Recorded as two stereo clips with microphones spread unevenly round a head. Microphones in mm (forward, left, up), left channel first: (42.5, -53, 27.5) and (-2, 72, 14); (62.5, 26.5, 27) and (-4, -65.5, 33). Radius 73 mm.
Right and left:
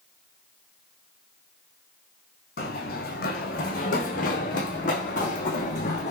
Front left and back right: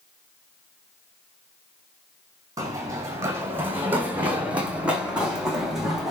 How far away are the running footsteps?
About 3.5 m.